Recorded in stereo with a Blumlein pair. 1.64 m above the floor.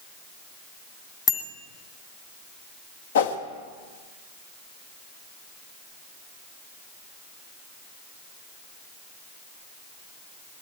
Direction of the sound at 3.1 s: 60° left.